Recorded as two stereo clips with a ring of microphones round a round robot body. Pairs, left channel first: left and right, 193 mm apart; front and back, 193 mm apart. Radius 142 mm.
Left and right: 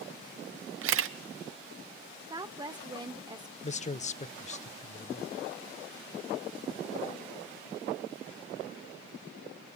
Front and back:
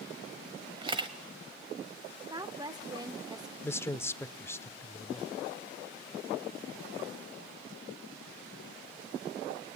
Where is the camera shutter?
110° right, 0.7 m.